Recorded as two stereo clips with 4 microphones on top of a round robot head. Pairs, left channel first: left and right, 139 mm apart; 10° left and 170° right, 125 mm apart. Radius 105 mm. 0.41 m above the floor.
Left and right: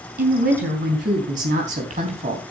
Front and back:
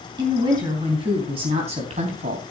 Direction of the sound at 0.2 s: 110° right.